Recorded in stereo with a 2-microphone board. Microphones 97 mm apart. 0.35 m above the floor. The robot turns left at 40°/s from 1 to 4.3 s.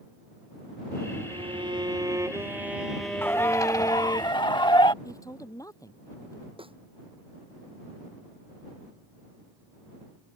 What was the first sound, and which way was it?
A violin, 110° right.